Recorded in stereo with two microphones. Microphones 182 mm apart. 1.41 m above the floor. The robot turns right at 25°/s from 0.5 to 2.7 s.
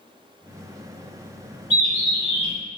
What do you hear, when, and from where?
1.7 s a bird: 35° right (ahead or behind), 1.7 m; by 2.5 s 15° right (ahead or behind), 1.7 m